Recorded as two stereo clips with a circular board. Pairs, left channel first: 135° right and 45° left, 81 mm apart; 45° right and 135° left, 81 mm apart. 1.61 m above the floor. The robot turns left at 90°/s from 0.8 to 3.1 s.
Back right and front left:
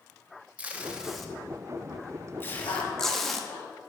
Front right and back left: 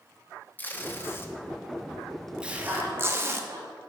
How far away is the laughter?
About 2.5 m.